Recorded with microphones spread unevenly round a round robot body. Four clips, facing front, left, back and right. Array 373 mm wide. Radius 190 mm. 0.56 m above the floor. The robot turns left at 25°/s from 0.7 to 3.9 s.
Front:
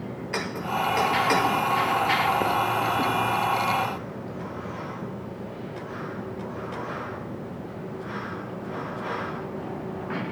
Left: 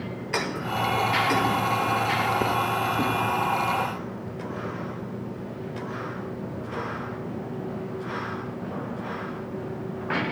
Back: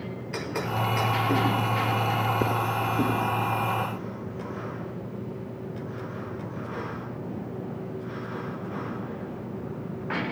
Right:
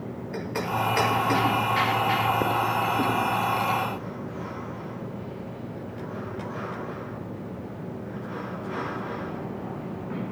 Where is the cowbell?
No cowbell in this recording.